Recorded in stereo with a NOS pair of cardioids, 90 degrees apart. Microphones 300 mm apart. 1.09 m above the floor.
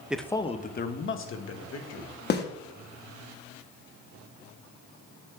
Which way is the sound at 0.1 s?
5° right.